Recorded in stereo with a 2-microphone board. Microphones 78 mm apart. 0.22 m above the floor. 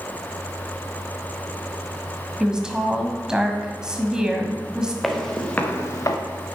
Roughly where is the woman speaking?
Centre.